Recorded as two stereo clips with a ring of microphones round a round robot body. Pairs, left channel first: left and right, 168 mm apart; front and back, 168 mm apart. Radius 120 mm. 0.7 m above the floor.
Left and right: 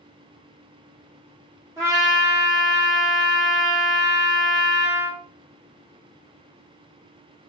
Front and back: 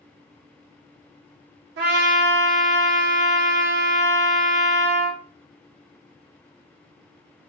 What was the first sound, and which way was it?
A trumpet, 170° right.